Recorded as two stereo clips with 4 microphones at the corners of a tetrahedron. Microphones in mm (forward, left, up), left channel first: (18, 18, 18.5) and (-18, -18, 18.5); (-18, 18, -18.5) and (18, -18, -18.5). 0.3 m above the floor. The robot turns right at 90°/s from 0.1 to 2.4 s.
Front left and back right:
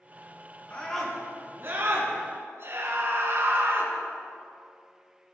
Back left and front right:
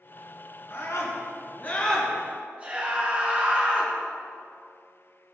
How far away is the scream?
About 4 m.